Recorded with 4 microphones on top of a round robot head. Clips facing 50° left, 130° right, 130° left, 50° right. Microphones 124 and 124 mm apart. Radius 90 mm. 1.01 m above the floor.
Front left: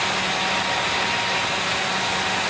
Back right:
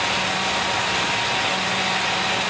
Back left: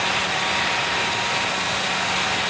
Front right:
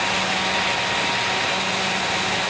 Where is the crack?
No crack in this recording.